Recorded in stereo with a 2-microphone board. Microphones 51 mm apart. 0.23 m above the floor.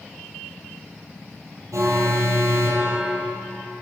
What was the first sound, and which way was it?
An alarm, 80° right.